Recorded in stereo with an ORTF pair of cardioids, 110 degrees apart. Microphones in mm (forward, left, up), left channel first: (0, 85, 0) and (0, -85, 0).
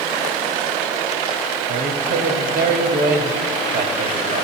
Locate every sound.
1.7 s a woman speaking: 65° right, 3 m